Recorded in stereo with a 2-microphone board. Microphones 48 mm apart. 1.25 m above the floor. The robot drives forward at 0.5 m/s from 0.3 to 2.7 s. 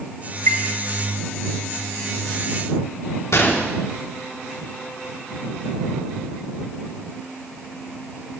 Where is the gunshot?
75° left (ahead or behind), 2.5 m.